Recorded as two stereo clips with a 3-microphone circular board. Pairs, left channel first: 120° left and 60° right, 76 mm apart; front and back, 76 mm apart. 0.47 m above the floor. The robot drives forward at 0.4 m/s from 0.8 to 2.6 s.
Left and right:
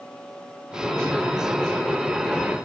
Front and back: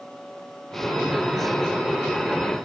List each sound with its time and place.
Only background noise.